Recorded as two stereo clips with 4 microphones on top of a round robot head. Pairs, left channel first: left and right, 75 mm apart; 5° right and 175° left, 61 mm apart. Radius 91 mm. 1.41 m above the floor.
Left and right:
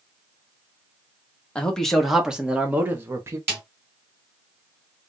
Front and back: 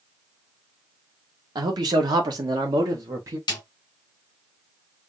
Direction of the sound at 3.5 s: 20° right.